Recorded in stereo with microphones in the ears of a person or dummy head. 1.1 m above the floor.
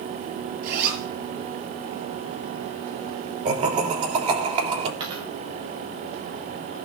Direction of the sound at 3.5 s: 35° right (ahead or behind).